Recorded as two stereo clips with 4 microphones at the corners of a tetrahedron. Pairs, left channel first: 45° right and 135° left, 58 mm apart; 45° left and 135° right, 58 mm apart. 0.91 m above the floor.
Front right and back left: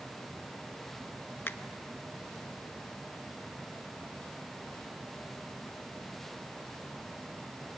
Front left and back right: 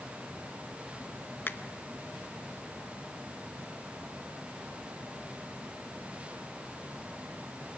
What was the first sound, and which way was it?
A finger snap, 5° right.